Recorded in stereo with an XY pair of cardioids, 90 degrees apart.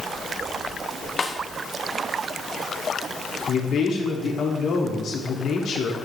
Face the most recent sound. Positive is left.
turn(degrees=70)